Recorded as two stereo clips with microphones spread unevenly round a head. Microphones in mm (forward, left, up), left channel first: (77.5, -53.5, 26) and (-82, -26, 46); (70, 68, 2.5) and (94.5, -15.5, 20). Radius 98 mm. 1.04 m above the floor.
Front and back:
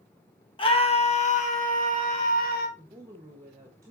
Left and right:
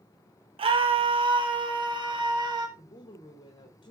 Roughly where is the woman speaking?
Left.